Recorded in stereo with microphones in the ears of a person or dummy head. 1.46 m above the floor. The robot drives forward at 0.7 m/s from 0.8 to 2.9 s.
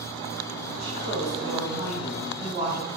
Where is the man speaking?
45° right (ahead or behind), 2.5 m; by 2.9 s 25° right (ahead or behind), 3.5 m.